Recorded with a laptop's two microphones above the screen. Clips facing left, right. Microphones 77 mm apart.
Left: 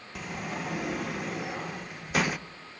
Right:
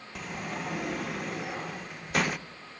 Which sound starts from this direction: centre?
A sliding door, at 0.1 s.